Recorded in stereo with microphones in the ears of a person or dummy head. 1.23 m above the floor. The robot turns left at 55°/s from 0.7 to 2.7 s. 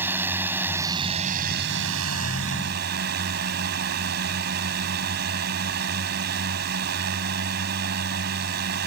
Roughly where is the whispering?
I don't hear whispering.